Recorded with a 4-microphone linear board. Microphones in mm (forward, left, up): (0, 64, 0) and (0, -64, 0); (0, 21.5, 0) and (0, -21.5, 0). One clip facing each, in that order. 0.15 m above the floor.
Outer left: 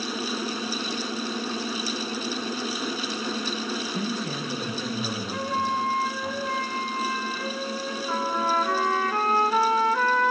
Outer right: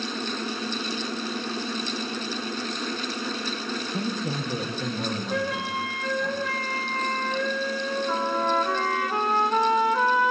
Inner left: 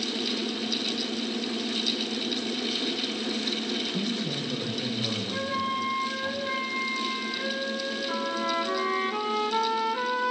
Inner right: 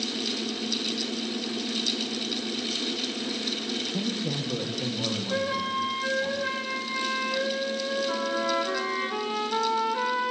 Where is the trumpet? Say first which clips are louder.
Outer left 1 dB, even; 15° right (ahead or behind), 4 m.